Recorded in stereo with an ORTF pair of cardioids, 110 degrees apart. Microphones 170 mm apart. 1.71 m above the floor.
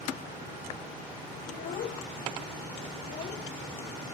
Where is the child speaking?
65° left; by 3.4 s 45° left.